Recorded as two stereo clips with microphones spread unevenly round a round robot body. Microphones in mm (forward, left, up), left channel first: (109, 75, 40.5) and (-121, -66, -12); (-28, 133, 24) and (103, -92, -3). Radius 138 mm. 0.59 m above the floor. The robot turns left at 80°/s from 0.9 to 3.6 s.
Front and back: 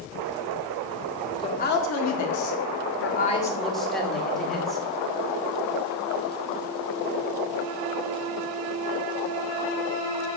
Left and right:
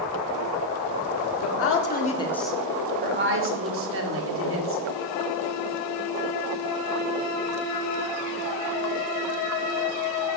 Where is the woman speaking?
110° left, 1.8 m; by 4.8 s 65° right, 1.8 m.